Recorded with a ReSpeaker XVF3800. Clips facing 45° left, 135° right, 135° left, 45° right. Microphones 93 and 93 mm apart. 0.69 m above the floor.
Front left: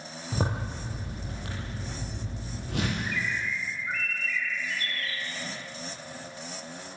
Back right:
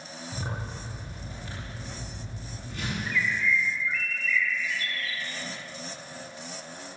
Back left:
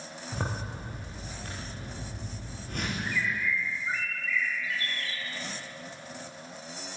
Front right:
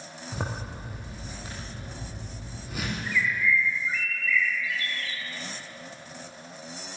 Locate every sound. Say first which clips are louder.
0.3 s a zipper: front left 6 dB, even; 40° left, 8.5 m
3.0 s a bird: back right 3 dB, front right 5 dB; 85° left, 1.5 m